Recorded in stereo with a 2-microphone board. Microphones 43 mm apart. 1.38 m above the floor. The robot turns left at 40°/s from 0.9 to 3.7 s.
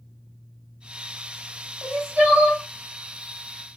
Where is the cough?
No cough in this recording.